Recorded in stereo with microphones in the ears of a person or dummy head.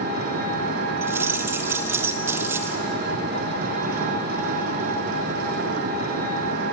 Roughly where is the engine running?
Right.